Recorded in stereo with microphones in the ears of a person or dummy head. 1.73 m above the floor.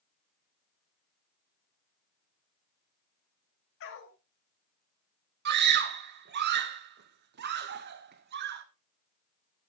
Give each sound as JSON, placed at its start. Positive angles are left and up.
{"t": 3.8, "sound": "a dog barking", "side_deg": 65, "distance_m": 3.0}
{"t": 5.5, "sound": "a scream", "side_deg": -50, "distance_m": 1.2}